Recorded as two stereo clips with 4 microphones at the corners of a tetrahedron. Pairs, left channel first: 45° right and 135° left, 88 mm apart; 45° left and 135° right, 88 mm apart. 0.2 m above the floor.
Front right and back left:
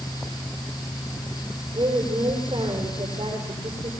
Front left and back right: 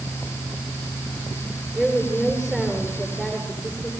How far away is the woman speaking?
About 6.5 m.